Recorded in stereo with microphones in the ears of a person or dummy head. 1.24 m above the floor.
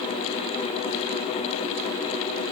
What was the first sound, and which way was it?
Only background noise.